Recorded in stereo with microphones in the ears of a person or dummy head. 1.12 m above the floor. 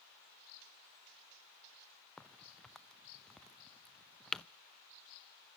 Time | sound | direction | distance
2.2 | a crack | centre (ahead or behind) | 0.6 m